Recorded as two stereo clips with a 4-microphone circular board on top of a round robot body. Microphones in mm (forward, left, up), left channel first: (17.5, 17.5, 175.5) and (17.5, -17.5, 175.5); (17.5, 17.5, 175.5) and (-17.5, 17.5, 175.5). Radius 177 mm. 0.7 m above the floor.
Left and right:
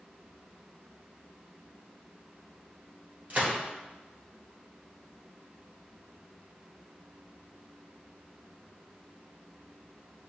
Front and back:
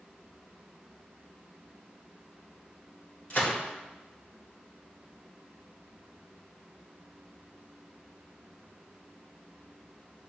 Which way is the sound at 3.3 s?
55° right.